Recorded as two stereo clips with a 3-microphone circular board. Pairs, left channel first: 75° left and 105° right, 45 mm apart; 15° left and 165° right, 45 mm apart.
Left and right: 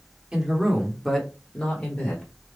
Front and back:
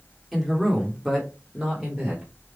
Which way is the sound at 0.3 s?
75° right.